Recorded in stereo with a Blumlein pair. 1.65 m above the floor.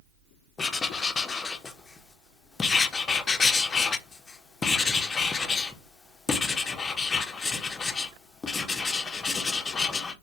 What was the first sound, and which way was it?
Writing, 20° left.